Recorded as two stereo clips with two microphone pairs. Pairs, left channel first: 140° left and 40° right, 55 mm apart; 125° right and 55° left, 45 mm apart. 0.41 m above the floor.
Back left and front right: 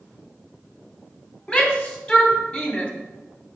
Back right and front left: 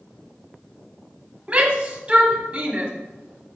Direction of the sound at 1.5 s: 80° left.